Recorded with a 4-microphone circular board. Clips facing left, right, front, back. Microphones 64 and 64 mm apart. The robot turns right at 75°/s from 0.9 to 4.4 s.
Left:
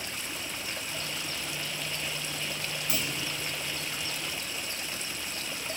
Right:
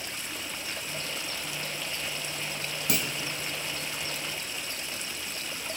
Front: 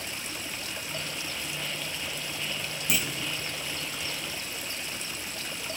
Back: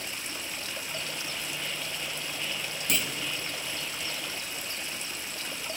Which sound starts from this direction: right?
A clunk, at 2.9 s.